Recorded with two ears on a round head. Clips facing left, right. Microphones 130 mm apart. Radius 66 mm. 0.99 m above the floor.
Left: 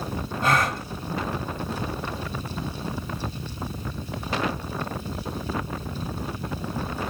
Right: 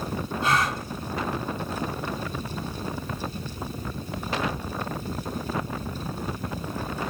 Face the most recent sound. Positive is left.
turn(degrees=45)  # may be behind; listen again after turning